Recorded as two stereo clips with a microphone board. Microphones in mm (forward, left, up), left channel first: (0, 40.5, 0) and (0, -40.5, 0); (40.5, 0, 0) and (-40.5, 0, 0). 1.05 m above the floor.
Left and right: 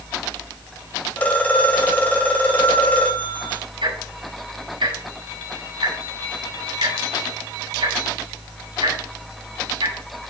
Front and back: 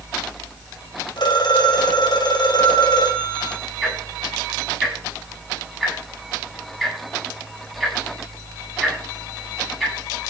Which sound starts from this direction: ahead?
A phone ringing, at 1.2 s.